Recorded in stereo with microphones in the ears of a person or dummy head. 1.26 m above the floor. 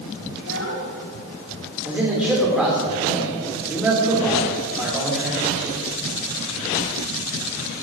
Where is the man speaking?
5° right (ahead or behind), 3 m.